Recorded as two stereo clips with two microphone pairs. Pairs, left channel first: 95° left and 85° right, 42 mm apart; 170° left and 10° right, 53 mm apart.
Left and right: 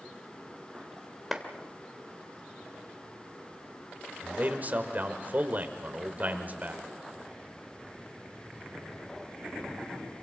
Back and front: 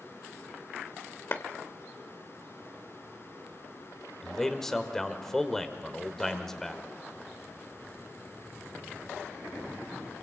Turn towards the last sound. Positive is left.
turn(degrees=-110)